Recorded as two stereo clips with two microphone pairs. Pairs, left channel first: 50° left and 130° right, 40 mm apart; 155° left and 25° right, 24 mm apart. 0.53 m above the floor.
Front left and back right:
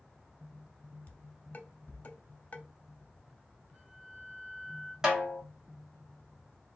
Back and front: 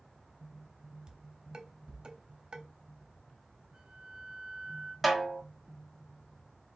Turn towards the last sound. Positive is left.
turn(degrees=-110)